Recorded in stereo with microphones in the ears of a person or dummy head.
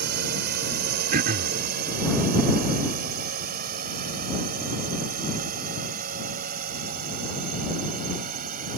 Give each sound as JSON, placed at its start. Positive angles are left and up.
{"t": 0.0, "sound": "a drone", "side_deg": -50}
{"t": 1.1, "sound": "throat clearing", "side_deg": -55}